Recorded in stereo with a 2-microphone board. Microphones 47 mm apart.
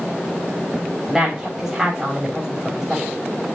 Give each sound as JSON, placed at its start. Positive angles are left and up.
{"t": 1.1, "sound": "a woman speaking", "side_deg": -10, "distance_m": 7.0}